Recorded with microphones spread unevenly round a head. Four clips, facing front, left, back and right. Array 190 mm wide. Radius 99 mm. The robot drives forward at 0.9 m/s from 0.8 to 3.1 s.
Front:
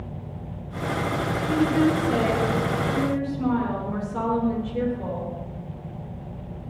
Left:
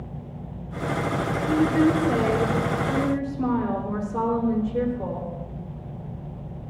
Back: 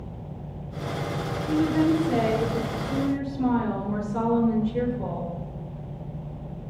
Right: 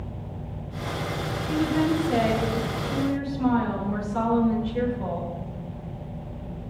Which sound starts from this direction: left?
A woman speaking, at 1.5 s.